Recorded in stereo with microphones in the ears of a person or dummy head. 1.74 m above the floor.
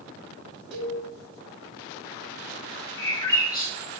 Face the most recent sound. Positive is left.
turn(degrees=15)  # may be behind; listen again after turning